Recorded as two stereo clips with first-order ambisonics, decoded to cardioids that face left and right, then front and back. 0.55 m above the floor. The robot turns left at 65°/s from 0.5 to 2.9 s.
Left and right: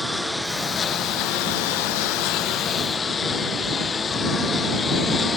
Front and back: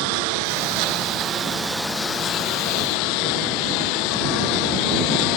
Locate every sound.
0.0 s a lawn mower: 175° left; by 5.4 s 20° left